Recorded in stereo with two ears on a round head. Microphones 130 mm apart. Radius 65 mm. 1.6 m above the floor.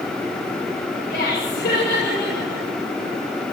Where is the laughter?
75° left (ahead or behind), 8.5 m.